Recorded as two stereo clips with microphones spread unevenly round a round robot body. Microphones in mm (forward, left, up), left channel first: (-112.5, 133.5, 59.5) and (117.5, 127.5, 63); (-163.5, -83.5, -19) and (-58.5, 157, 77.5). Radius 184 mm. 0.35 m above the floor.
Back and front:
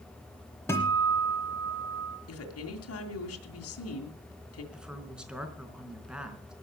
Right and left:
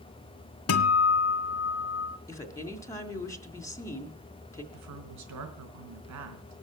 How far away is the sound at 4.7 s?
About 4.5 m.